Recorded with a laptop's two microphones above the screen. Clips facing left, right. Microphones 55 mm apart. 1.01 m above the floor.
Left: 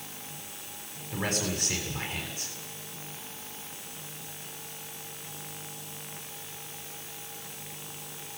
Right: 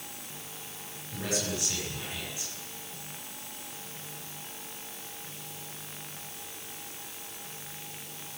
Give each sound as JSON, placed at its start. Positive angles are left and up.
{"t": 1.1, "sound": "a man speaking", "side_deg": 40, "distance_m": 6.5}